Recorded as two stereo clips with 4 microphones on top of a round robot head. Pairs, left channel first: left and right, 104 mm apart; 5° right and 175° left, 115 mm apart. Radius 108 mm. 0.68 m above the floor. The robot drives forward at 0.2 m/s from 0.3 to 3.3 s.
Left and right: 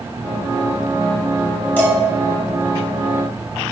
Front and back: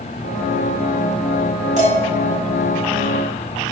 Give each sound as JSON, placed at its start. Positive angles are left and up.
{"t": 1.8, "sound": "dishes clattering", "azimuth_deg": 160, "distance_m": 1.8}